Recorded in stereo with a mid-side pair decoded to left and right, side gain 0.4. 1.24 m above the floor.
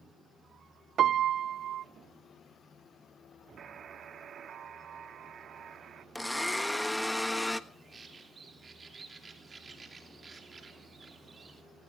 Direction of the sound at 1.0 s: 65° right.